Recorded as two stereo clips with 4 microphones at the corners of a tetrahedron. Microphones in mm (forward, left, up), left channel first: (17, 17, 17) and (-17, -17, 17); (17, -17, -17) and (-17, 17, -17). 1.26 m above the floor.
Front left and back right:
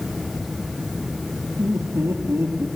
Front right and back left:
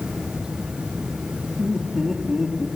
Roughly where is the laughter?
Behind right.